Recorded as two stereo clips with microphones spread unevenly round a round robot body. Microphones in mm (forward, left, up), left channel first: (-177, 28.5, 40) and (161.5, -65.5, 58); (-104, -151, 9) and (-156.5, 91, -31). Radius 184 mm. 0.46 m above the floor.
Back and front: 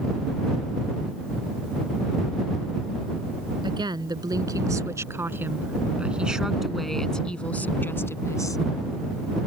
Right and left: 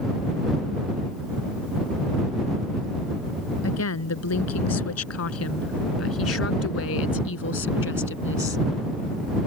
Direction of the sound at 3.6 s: 95° right.